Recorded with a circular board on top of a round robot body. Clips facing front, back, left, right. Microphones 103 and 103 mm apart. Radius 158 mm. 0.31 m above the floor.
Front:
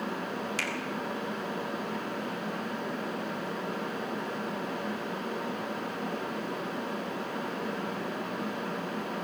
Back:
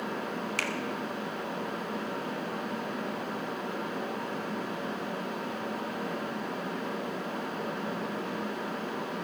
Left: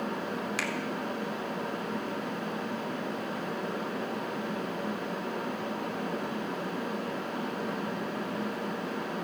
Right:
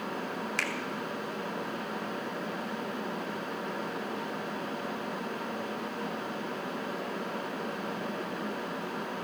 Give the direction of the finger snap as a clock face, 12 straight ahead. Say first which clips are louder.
Back 1 dB, left 1 dB; 6 o'clock.